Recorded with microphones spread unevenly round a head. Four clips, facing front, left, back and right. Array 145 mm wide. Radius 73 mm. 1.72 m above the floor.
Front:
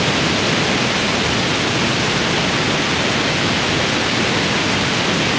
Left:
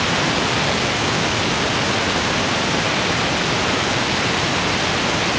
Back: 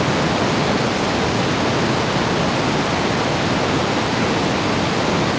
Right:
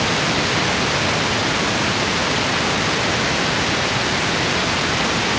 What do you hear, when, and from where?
Only background noise.